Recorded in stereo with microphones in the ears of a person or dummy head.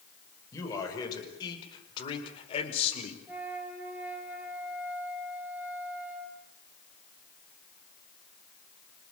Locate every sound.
0.5 s a man speaking: 20° left (ahead or behind), 5.5 m; by 3.2 s 40° left (ahead or behind), 4 m
3.3 s a flute: 10° right (ahead or behind), 3.5 m